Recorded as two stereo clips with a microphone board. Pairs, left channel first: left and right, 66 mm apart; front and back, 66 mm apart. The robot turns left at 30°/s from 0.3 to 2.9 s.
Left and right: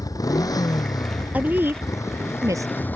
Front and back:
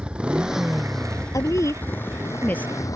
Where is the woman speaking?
25° right; by 2.7 s 65° right.